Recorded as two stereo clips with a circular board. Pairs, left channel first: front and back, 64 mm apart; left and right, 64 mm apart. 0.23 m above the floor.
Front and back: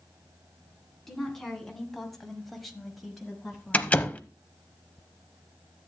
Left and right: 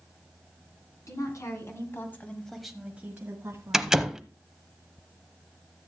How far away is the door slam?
About 0.7 m.